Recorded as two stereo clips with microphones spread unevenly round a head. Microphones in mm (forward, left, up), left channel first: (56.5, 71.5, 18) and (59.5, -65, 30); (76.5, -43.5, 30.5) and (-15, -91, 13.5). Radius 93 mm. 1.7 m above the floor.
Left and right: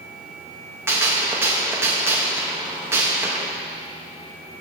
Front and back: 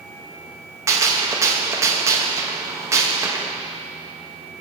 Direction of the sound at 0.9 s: 115° right.